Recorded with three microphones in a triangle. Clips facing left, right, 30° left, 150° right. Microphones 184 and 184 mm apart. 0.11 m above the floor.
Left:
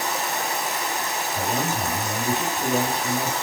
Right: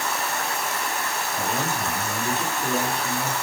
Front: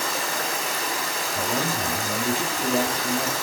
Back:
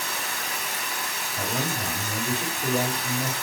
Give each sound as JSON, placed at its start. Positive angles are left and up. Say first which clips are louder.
{"t": 0.0, "sound": "running water", "louder": "left 1 dB, front 6 dB", "azimuth_deg": 20, "distance_m": 0.8}
{"t": 1.4, "sound": "a man speaking", "louder": "left 2 dB, front 2 dB", "azimuth_deg": 35, "distance_m": 3.0}